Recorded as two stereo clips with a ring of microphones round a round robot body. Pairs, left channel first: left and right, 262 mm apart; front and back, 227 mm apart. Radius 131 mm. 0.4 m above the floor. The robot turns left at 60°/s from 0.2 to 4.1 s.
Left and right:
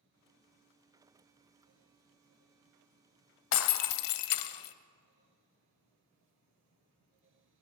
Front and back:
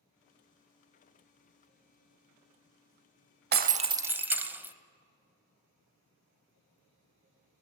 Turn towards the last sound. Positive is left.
turn(degrees=100)